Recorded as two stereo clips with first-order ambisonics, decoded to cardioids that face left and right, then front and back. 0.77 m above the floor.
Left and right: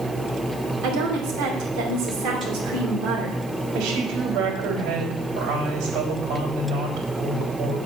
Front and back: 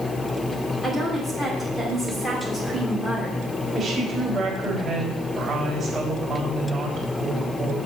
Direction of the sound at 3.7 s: 95° right.